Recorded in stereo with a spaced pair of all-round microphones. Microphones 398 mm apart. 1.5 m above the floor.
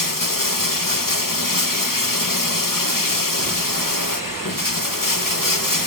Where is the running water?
50° left (ahead or behind), 1.1 m.